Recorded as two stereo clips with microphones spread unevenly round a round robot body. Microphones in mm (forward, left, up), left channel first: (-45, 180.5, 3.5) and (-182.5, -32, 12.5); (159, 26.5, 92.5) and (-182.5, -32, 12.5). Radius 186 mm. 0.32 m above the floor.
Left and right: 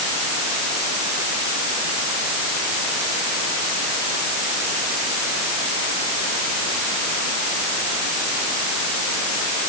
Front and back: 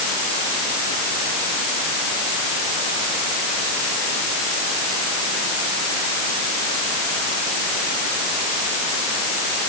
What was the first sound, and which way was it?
Only background noise.